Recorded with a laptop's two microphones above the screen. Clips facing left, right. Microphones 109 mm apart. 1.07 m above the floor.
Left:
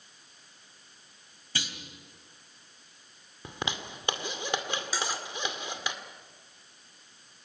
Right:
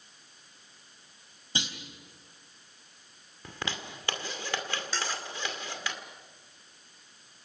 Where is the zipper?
20° left (ahead or behind), 2.0 m.